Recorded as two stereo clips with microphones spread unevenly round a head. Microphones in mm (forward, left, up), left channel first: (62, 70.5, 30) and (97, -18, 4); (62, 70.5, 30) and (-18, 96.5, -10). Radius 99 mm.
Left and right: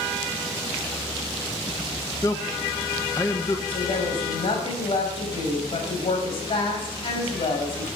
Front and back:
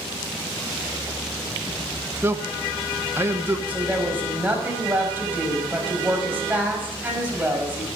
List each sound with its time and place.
2.2 s a man speaking: straight behind, 1.0 m
3.7 s a woman speaking: 90° left, 5 m